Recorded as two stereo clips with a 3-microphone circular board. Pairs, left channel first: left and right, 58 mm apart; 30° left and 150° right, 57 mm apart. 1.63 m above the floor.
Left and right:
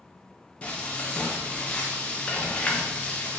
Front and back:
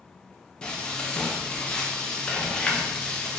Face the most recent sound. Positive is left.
turn(degrees=75)